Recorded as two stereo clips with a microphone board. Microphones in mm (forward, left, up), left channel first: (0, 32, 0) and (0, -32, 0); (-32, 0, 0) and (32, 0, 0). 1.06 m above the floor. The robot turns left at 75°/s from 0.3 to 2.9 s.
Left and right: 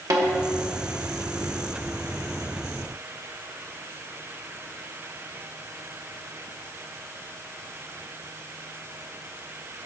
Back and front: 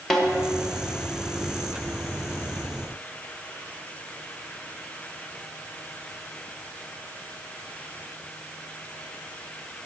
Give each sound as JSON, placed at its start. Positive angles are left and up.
{"t": 0.1, "sound": "a snare drum", "azimuth_deg": -95, "distance_m": 1.5}